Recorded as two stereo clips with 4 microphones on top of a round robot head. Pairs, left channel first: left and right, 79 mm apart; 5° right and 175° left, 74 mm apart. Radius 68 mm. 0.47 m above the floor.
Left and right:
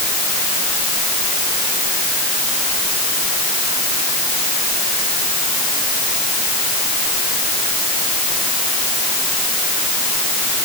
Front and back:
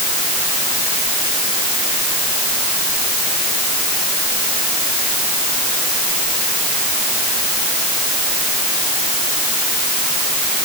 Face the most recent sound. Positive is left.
No sound to turn to.